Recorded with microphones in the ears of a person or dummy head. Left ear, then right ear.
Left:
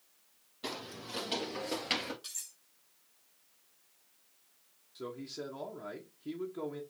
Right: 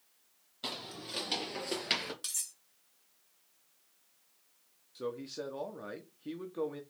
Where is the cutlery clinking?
35° right (ahead or behind), 1.4 m.